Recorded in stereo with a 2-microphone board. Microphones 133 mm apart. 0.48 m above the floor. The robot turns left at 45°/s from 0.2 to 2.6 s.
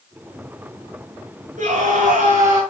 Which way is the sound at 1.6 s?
70° right.